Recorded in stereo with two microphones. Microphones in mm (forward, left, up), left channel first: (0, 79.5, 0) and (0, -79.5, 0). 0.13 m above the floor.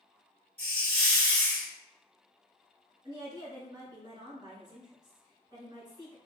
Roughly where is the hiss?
Centre.